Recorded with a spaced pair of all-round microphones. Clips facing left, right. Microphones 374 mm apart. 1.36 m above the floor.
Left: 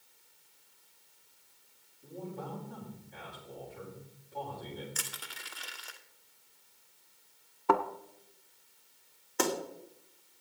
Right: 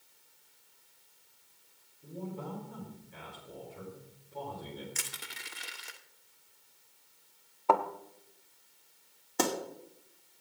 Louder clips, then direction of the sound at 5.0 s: Left 1 dB; 35° right (ahead or behind).